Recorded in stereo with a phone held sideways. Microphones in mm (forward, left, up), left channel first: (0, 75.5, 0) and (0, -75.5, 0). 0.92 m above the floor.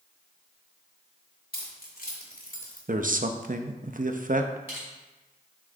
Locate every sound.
1.5 s keys jangling: 85° left, 1.7 m; by 2.8 s 80° left, 3 m
2.9 s a man speaking: 65° right (ahead or behind), 0.7 m
4.7 s crushing: 15° right (ahead or behind), 3.5 m